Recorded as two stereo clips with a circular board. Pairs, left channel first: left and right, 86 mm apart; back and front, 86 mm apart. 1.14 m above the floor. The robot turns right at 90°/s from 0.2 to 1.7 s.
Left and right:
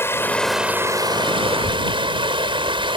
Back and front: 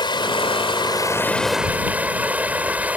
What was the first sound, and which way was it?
Running water, 155° left.